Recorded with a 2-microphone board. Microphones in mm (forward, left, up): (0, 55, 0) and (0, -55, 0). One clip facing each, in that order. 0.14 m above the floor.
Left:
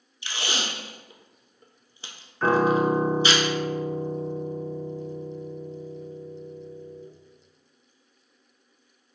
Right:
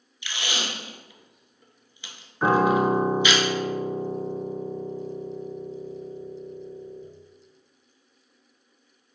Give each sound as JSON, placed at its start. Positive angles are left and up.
{"t": 0.2, "sound": "tape being pulled", "side_deg": 35, "distance_m": 0.6}
{"t": 2.4, "sound": "a piano", "side_deg": -15, "distance_m": 0.6}